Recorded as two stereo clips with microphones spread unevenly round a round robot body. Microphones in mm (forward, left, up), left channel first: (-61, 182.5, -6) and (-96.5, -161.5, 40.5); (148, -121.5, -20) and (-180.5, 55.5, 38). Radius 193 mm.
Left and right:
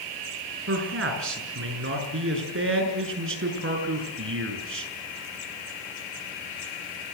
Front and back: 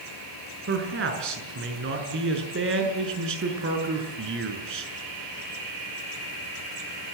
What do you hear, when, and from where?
0.7 s a man speaking: 150° right, 6 m